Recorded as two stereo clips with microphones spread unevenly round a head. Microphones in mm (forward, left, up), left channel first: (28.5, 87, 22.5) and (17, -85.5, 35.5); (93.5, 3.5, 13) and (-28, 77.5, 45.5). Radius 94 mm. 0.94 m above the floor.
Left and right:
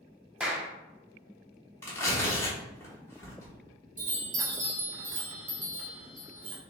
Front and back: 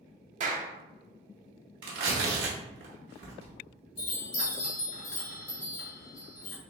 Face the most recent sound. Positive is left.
turn(degrees=-50)